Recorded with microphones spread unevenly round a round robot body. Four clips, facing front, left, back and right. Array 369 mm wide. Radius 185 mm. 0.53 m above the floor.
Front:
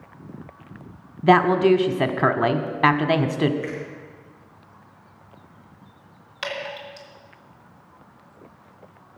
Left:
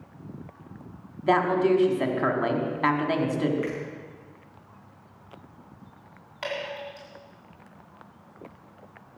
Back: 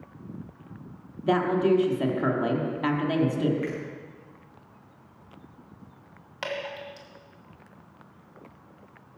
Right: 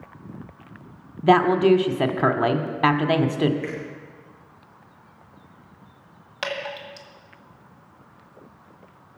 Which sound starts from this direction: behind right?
Dripping, at 6.4 s.